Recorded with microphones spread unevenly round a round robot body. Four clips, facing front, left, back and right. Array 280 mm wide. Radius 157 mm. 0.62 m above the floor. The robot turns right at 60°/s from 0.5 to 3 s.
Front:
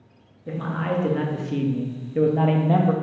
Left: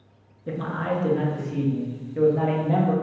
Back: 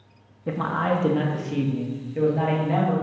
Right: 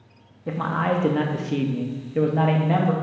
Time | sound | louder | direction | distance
0.5 | a man speaking | right 4 dB, back 3 dB | 150° right | 0.7 m